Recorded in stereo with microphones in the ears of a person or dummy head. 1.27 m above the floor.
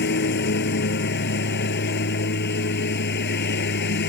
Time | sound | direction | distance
0.0 | a lawn mower | 50° left (ahead or behind) | ?